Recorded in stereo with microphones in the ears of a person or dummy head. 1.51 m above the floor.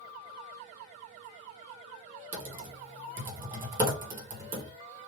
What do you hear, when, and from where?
2.3 s typing on a keyboard: 15° right (ahead or behind), 1.0 m